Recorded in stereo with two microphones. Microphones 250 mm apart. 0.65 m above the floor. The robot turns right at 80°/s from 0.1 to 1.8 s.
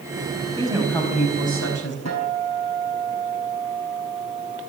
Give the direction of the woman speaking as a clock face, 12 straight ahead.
1 o'clock.